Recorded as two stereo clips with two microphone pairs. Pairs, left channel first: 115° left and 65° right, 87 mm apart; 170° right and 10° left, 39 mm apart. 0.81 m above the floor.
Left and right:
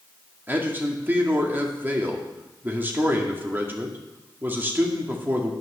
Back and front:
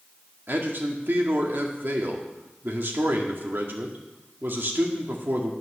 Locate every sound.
0.5 s a man speaking: straight ahead, 2 m